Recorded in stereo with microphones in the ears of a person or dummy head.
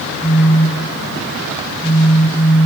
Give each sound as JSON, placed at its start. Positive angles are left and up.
{"t": 0.2, "sound": "a phone buzzing", "side_deg": 10, "distance_m": 1.8}